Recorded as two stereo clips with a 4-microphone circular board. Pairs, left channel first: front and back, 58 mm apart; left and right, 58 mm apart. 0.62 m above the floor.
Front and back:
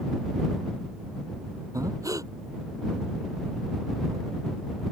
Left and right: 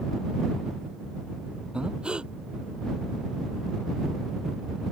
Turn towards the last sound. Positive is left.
turn(degrees=-165)